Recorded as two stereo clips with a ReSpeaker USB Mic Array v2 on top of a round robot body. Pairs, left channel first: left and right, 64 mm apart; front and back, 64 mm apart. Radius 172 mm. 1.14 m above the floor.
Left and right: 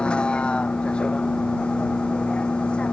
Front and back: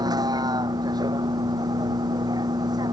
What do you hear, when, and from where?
0.0 s a vehicle: 165° left